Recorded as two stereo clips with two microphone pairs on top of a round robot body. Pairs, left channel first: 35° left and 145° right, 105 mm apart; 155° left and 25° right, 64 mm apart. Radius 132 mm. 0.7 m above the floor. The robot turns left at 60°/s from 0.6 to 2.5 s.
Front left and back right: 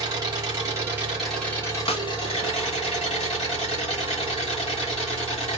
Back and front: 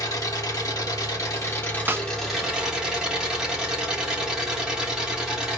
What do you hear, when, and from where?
0.0 s an engine running: 170° left, 2.5 m; by 5.6 s 55° left, 2.5 m
1.9 s a snare drum: 35° left, 1.0 m; by 2.0 s 25° left, 1.0 m